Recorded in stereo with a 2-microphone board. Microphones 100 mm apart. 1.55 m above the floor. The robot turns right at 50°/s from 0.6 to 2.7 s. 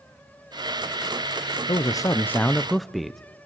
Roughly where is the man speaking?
Behind left.